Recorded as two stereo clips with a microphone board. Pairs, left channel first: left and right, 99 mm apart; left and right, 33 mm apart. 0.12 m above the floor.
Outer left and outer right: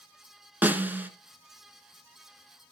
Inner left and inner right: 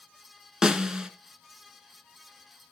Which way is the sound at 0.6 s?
20° right (ahead or behind).